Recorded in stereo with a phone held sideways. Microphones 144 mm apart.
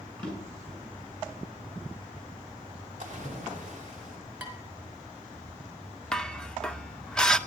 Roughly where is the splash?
Right.